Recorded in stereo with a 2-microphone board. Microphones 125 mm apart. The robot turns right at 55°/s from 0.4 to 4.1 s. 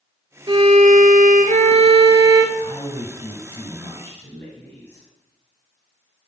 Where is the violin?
140° right, 0.8 m; by 2.5 s 30° right, 0.8 m.